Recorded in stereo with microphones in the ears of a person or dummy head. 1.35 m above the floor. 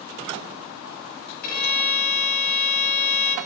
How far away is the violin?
About 8 m.